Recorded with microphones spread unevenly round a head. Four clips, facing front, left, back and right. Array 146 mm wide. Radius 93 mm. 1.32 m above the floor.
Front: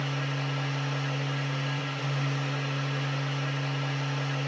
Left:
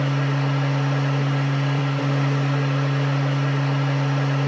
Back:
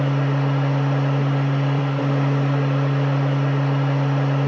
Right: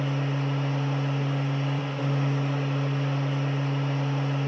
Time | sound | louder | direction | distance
0.0 | a machine running | left 5 dB, back 11 dB | 150° left | 0.9 m